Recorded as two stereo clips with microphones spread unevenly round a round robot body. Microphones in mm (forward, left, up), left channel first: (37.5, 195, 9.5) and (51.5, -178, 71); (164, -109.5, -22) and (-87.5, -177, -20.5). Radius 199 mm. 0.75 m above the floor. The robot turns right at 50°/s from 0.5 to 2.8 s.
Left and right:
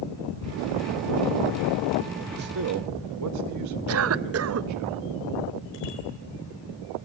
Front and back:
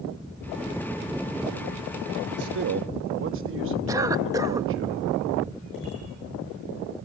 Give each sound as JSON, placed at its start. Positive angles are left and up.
{"t": 2.3, "sound": "a man speaking", "azimuth_deg": -160, "distance_m": 0.8}
{"t": 3.9, "sound": "a cough", "azimuth_deg": -100, "distance_m": 0.6}
{"t": 5.7, "sound": "a bicycle bell", "azimuth_deg": 80, "distance_m": 7.5}